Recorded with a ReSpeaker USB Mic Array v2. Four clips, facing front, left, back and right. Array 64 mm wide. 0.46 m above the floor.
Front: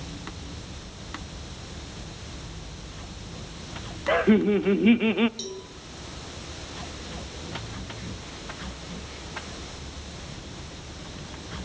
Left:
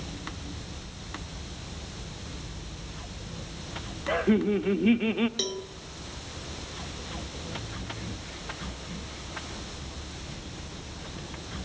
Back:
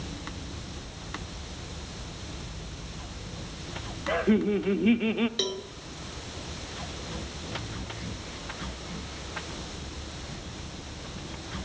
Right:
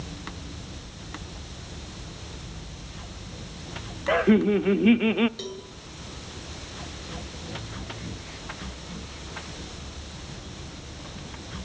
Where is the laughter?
45° right, 0.8 m.